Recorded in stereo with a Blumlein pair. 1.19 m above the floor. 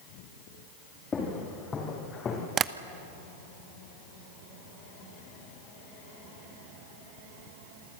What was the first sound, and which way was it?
Footsteps, 20° left.